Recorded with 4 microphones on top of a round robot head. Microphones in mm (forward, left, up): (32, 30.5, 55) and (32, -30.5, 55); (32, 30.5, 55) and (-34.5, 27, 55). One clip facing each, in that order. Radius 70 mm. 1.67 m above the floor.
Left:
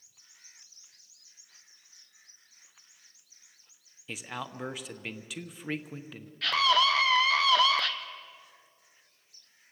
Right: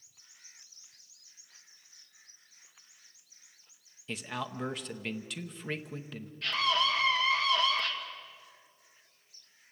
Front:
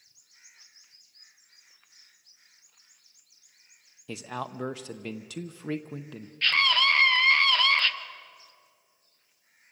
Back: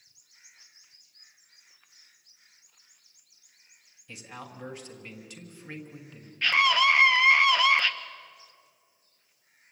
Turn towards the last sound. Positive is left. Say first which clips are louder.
# left 5 dB, back 2 dB
turn(degrees=105)